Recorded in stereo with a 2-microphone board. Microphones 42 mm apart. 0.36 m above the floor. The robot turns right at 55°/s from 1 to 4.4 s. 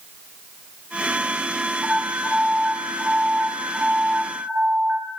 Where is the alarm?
175° left, 7.5 m; by 5.1 s 45° right, 7.5 m.